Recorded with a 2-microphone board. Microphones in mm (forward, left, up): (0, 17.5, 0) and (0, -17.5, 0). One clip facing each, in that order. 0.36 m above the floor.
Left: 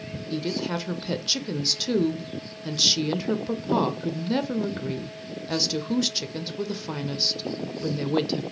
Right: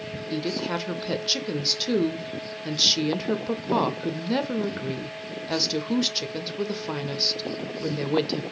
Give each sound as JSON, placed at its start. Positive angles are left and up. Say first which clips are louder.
{"t": 0.3, "sound": "a woman speaking", "louder": "even", "side_deg": -10, "distance_m": 0.8}